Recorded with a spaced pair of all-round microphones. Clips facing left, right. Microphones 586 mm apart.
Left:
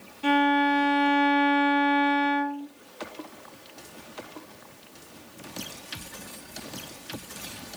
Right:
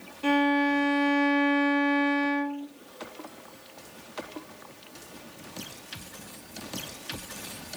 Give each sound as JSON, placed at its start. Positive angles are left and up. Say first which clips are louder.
{"t": 0.2, "sound": "a violin", "louder": "even", "side_deg": 10, "distance_m": 0.7}